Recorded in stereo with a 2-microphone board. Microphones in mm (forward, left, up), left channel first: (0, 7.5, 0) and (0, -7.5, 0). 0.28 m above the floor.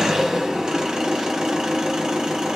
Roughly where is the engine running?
Right.